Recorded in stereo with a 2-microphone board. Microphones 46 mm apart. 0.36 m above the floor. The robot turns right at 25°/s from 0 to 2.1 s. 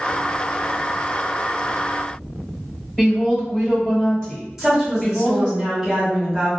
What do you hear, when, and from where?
3.0 s a woman speaking: 20° left (ahead or behind), 1.5 m
4.6 s a woman speaking: 10° right (ahead or behind), 1.3 m